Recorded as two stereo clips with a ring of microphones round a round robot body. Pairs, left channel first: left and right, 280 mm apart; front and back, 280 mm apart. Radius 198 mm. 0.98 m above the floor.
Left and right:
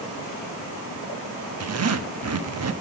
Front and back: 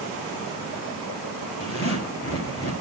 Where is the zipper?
55° right, 1.4 m.